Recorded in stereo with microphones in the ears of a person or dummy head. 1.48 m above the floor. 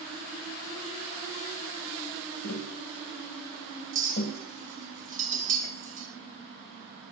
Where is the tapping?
50° left (ahead or behind), 2 m.